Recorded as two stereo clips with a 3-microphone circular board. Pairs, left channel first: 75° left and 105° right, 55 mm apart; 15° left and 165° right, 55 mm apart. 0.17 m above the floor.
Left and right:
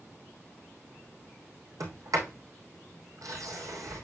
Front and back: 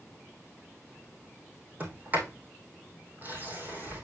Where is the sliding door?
105° right, 3 m.